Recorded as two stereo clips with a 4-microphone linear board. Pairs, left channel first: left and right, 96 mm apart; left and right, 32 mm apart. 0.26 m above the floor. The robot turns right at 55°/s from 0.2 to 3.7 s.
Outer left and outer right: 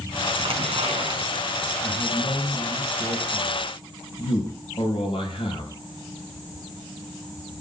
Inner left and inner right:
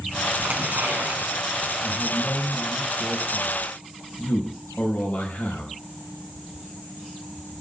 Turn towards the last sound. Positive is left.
turn(degrees=90)